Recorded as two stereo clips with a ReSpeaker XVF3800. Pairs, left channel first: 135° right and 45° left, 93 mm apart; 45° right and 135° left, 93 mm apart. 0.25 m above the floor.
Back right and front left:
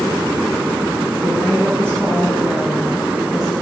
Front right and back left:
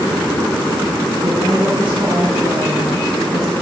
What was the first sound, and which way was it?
A woman speaking, 90° left.